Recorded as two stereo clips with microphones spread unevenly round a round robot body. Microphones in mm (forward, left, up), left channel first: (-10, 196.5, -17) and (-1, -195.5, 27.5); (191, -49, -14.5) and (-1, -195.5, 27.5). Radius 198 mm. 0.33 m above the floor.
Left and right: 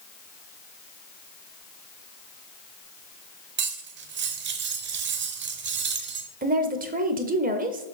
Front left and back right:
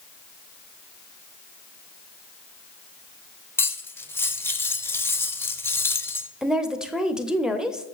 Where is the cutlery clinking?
30° right, 0.9 m.